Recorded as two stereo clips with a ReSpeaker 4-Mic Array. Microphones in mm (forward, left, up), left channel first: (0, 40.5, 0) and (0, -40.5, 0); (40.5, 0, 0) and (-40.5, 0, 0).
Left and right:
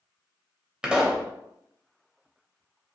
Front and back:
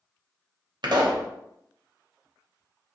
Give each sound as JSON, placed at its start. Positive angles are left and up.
{"t": 0.8, "sound": "a pop", "azimuth_deg": -170, "distance_m": 0.6}